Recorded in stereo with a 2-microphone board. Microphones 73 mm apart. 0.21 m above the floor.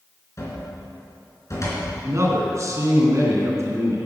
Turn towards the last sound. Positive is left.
turn(degrees=-45)  # may be behind; listen again after turning